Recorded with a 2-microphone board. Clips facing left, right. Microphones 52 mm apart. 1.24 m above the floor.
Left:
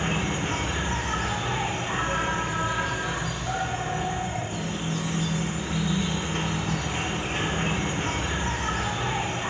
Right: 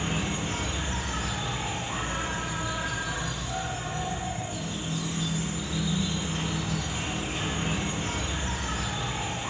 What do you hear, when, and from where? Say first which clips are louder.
0.0 s an insect: left 3 dB; 50° left (ahead or behind), 0.7 m